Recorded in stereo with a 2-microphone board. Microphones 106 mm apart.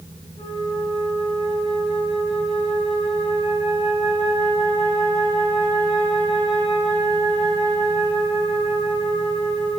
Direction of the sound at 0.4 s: 70° left (ahead or behind).